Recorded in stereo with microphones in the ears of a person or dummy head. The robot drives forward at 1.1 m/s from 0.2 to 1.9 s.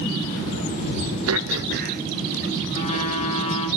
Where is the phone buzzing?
35° left (ahead or behind), 3 m.